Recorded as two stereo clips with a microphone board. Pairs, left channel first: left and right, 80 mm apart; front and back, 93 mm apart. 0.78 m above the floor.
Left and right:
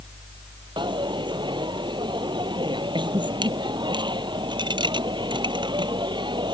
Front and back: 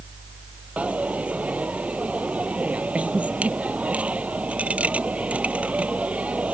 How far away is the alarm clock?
No alarm clock in this recording.